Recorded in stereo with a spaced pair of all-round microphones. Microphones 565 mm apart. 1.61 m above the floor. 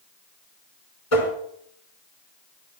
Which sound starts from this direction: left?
Tapping, at 1.1 s.